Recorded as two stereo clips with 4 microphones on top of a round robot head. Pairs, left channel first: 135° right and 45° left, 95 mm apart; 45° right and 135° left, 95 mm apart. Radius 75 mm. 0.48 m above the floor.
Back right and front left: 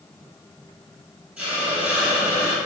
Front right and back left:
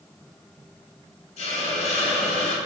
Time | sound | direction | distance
1.4 | a hiss | 30° right | 1.1 m